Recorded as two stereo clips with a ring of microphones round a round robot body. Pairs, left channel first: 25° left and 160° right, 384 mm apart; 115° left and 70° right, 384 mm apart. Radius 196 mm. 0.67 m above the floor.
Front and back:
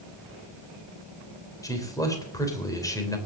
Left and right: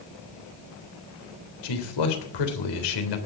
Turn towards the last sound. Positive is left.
turn(degrees=105)